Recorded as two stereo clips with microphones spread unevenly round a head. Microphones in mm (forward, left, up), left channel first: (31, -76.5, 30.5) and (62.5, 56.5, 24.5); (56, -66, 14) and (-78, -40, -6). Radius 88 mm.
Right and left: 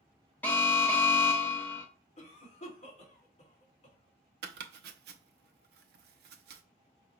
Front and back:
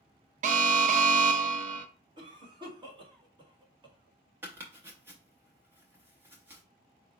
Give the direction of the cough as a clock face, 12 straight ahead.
5 o'clock.